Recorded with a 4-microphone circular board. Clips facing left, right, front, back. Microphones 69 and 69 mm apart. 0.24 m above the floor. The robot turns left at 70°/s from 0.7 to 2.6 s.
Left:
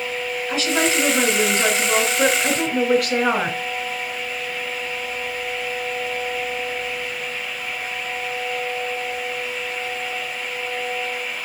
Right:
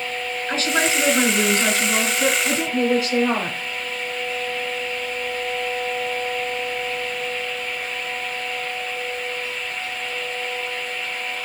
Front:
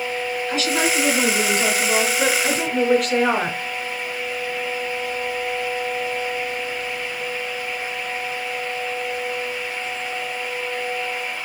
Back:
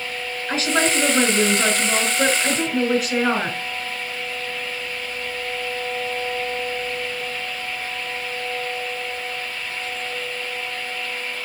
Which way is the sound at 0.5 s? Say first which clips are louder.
Even, back 2 dB; 140° right.